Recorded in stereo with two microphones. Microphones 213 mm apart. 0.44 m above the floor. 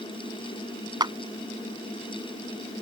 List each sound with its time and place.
1.0 s a clap: 20° right (ahead or behind)